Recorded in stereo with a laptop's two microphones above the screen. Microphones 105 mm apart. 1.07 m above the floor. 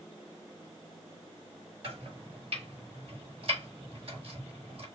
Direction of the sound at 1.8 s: 60° right (ahead or behind).